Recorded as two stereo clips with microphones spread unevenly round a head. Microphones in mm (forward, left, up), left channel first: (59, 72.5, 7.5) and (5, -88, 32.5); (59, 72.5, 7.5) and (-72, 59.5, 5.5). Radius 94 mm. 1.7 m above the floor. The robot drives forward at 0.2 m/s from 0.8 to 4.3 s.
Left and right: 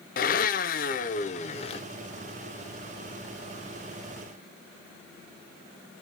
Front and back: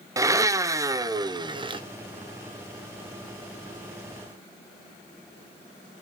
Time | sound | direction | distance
0.2 | a blender | 120° left | 0.6 m